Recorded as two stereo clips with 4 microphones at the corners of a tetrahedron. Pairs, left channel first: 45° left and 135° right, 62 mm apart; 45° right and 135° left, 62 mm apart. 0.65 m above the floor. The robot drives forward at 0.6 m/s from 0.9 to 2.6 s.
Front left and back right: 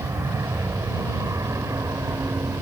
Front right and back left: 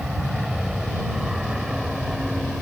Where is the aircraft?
145° right; by 2.6 s 140° right.